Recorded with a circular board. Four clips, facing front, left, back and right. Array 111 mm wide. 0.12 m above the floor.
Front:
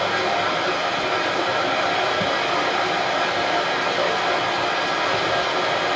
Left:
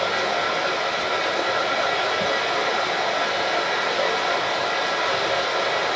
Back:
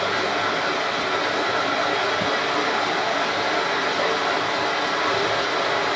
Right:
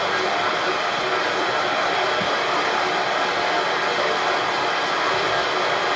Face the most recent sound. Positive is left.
turn(degrees=-30)